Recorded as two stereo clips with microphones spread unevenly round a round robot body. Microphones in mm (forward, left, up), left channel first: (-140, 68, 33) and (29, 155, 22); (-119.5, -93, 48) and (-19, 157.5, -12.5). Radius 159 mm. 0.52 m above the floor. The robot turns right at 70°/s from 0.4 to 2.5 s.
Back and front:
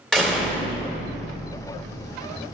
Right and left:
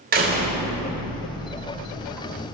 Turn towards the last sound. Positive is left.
turn(degrees=-95)